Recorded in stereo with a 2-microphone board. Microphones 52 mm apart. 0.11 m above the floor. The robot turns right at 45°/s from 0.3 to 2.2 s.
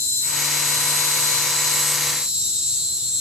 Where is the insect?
105° left, 9.5 m; by 3.2 s 170° right, 9.5 m.